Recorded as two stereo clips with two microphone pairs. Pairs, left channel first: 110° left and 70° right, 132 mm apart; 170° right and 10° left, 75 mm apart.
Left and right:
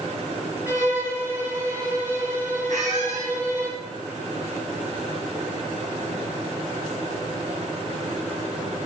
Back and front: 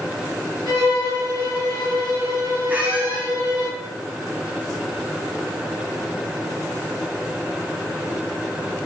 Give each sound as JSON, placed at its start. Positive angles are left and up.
{"t": 0.7, "sound": "a violin", "azimuth_deg": 10, "distance_m": 4.0}
{"t": 2.7, "sound": "a squeak", "azimuth_deg": -55, "distance_m": 1.8}